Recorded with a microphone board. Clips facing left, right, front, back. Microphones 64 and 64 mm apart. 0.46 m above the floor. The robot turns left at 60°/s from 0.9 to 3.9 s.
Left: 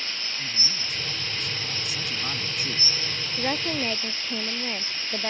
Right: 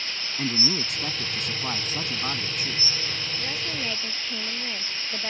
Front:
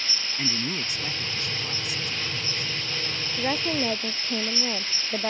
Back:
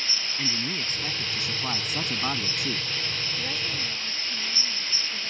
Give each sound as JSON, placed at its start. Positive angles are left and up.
{"t": 0.4, "sound": "a man speaking", "azimuth_deg": -80}
{"t": 3.4, "sound": "a woman speaking", "azimuth_deg": 50}